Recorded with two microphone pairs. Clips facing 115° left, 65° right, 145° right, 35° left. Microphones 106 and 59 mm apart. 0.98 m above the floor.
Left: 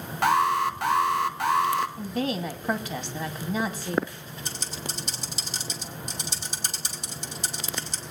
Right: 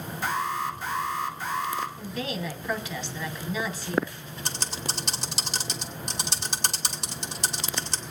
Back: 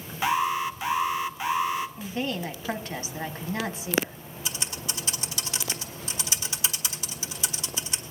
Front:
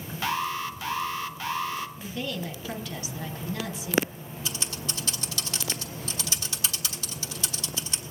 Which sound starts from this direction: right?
Typing on a keyboard, at 4.5 s.